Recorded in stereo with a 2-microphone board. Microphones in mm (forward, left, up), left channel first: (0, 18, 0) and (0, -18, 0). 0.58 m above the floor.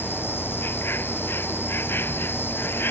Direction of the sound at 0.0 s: 85° left.